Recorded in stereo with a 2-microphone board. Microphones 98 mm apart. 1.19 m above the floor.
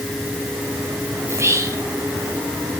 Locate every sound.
1.3 s whispering: 30° right (ahead or behind), 0.8 m